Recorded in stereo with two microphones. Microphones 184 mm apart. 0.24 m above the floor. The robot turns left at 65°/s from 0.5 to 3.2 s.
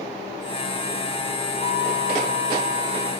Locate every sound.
1.6 s a violin: 70° right, 3 m; by 3.1 s 170° right, 3 m